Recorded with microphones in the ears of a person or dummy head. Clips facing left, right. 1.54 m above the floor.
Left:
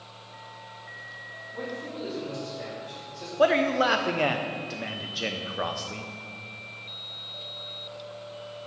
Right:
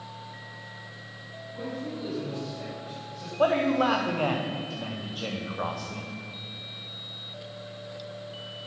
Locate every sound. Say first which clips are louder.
1.5 s a man speaking: right 1 dB; 25° left (ahead or behind), 2.5 m
3.4 s a man speaking: left 1 dB; 20° left (ahead or behind), 0.6 m